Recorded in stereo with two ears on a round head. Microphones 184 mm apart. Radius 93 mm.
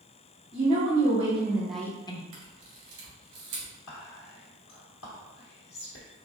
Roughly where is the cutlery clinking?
I don't hear cutlery clinking.